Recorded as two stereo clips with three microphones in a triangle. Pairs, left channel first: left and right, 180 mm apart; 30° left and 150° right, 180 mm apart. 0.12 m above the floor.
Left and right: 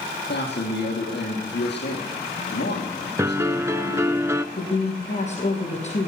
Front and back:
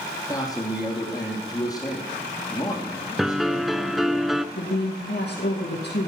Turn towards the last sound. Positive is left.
turn(degrees=40)